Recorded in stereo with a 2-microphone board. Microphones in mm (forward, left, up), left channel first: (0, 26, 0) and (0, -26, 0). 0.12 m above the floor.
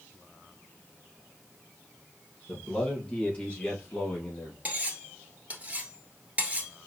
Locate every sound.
2.5 s a man speaking: 15° left (ahead or behind), 3 m; by 4.5 s 35° left (ahead or behind), 2.5 m
4.7 s cutlery clinking: 25° right (ahead or behind), 1.3 m